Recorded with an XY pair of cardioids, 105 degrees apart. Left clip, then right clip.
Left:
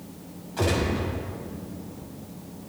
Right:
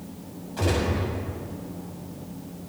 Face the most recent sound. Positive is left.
turn(degrees=15)